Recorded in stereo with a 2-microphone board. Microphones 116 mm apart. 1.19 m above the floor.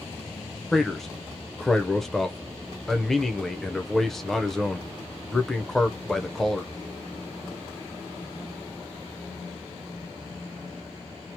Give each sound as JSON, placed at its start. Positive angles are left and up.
{"t": 0.7, "sound": "a man speaking", "side_deg": 5, "distance_m": 0.6}